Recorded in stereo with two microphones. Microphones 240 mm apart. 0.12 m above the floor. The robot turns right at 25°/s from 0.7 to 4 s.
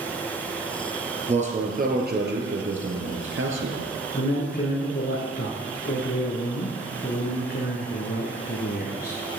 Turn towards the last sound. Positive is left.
turn(degrees=40)  # may be behind; listen again after turning